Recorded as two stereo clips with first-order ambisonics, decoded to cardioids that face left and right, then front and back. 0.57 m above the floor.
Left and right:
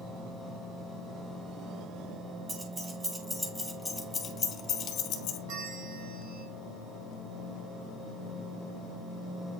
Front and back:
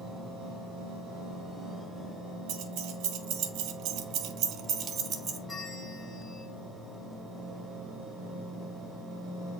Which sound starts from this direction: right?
A bell, at 5.5 s.